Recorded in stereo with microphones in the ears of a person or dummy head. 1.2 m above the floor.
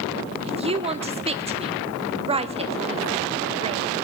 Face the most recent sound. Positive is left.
turn(degrees=-25)  # may be behind; listen again after turning